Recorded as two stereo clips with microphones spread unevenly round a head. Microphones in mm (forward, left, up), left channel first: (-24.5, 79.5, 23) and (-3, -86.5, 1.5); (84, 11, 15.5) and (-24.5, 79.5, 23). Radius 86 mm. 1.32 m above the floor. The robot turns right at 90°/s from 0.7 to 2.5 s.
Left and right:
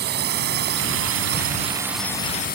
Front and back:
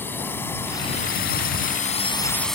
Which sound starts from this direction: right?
A drone, at 0.0 s.